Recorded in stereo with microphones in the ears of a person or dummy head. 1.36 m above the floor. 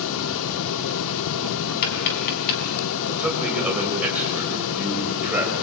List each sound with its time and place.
0.0 s a fan: 70° left (ahead or behind), 0.8 m
1.8 s tapping: 50° left (ahead or behind), 4.5 m
3.2 s a man speaking: 5° right (ahead or behind), 7.5 m